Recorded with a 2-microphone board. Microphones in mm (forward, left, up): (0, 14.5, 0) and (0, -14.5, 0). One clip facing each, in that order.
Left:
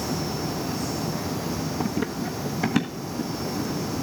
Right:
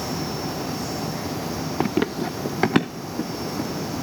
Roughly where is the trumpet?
I don't hear a trumpet.